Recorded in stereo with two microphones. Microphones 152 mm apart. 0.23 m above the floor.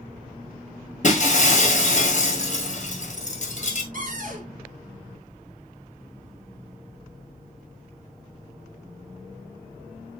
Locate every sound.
1.0 s breaking glass: 55° left (ahead or behind), 1.2 m
3.9 s a cupboard door: 60° right (ahead or behind), 1.2 m